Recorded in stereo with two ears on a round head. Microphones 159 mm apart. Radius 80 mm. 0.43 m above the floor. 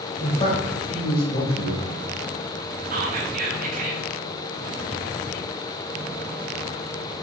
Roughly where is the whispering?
Right.